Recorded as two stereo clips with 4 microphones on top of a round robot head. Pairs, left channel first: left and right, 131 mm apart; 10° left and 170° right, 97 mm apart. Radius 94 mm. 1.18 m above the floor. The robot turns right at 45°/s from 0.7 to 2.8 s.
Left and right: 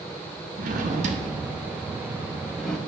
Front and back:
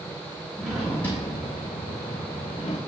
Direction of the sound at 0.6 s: 85° right.